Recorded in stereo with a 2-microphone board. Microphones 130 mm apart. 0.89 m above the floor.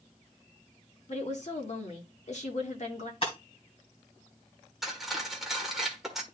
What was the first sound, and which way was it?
A woman speaking, 55° left (ahead or behind).